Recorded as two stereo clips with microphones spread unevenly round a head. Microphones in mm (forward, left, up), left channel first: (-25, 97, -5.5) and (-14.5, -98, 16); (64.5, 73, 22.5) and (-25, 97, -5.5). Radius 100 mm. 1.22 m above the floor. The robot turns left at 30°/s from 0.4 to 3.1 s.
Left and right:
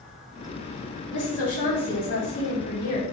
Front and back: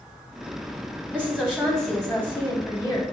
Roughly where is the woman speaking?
Left.